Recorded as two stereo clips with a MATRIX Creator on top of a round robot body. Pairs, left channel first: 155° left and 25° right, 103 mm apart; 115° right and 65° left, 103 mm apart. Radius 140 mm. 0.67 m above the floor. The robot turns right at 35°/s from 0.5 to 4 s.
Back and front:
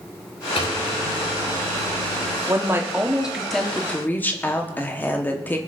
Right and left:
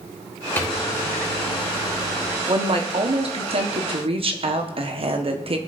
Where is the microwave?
175° left, 3 m; by 2.4 s 120° right, 3 m.